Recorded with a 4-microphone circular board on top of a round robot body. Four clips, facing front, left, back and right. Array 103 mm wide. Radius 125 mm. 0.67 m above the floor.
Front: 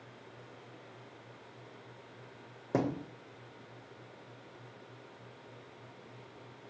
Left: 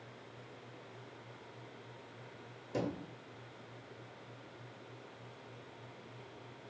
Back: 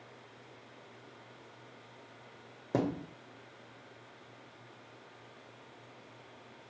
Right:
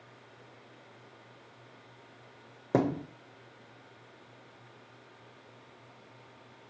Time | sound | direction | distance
2.7 | a thud | 85° right | 0.7 m